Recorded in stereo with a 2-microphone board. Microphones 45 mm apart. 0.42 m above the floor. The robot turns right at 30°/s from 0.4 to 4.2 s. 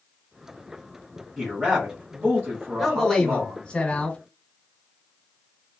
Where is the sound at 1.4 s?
165° right, 1.7 m; by 3.6 s 95° right, 1.7 m.